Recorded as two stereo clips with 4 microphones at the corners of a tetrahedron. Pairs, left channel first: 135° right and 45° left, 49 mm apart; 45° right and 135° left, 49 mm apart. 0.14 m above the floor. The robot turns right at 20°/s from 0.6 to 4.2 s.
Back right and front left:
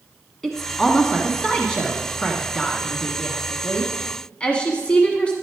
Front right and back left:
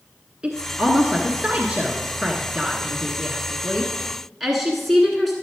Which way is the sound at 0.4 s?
150° left.